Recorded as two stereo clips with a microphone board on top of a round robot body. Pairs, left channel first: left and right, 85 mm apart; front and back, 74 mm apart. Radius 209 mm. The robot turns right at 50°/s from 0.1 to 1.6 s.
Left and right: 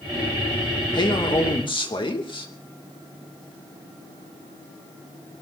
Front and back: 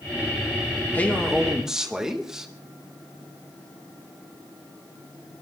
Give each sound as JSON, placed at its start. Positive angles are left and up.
{"t": 0.9, "sound": "a man speaking", "azimuth_deg": 65, "distance_m": 2.5}